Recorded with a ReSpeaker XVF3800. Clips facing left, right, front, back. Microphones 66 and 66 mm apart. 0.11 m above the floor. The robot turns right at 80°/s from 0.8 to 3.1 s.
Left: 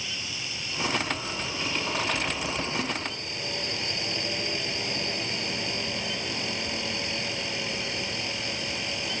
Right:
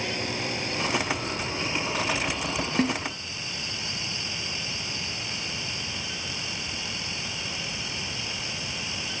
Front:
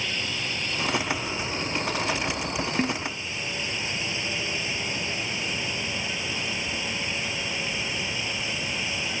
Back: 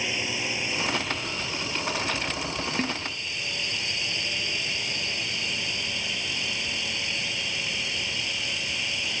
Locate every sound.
0.0 s a drone: 110° right; by 9.2 s 75° left
2.8 s a snare drum: 75° right; by 3.0 s 60° right